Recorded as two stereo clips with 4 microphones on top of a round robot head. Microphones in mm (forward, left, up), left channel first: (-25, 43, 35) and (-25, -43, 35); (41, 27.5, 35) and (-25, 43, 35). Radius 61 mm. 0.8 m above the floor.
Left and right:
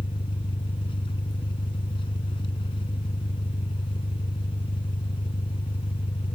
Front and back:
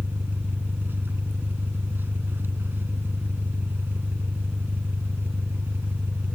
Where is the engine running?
110° left.